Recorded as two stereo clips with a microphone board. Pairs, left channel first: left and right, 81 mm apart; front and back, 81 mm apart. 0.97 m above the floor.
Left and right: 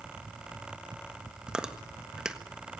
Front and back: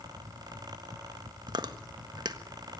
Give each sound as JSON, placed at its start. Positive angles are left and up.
{"t": 1.5, "sound": "chewing", "azimuth_deg": -170, "distance_m": 1.5}